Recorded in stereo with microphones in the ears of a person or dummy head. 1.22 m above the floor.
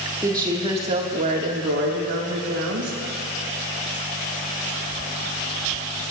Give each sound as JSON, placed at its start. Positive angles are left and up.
{"t": 0.2, "sound": "a woman speaking", "side_deg": -15, "distance_m": 1.5}